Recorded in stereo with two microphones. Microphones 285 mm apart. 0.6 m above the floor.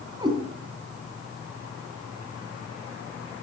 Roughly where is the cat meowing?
Centre.